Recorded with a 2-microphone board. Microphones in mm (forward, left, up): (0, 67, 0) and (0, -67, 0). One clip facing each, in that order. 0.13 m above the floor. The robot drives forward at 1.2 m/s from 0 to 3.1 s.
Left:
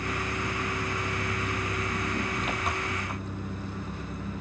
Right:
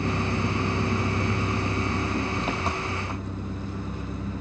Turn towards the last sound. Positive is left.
turn(degrees=-25)  # may be behind; listen again after turning